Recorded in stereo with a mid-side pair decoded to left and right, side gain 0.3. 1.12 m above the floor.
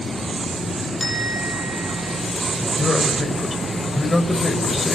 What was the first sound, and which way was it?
A bell, 20° left.